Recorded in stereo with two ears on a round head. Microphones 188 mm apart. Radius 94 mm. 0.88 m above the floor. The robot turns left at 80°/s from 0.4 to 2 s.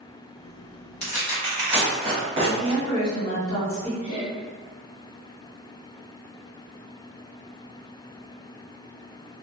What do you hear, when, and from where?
1.0 s tearing paper: 45° left (ahead or behind), 1.3 m; by 2.8 s 30° right (ahead or behind), 1.3 m
2.4 s a woman speaking: 45° left (ahead or behind), 1.4 m
4.0 s laughter: 35° left (ahead or behind), 1.3 m